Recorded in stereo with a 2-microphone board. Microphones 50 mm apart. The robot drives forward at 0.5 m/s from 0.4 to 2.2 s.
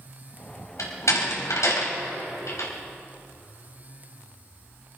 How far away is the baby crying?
No baby crying in this recording.